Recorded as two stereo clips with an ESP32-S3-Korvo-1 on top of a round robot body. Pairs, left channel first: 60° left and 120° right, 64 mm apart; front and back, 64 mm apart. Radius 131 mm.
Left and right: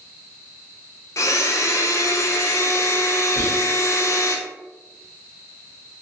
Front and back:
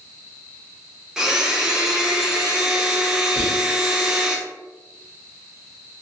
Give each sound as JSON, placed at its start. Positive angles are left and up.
{"t": 1.2, "sound": "a blender", "azimuth_deg": 100, "distance_m": 0.6}
{"t": 3.4, "sound": "whispering", "azimuth_deg": -100, "distance_m": 1.2}